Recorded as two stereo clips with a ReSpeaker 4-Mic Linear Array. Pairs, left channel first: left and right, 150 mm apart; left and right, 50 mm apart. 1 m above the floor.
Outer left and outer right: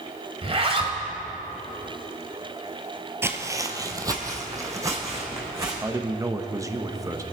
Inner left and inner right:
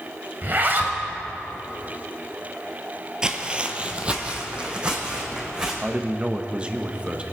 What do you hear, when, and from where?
0.4 s a zipper: 40° right (ahead or behind), 1.6 m
3.2 s footsteps: 15° right (ahead or behind), 1.0 m; by 5.7 s 20° right (ahead or behind), 4 m
5.8 s a man speaking: 20° right (ahead or behind), 0.9 m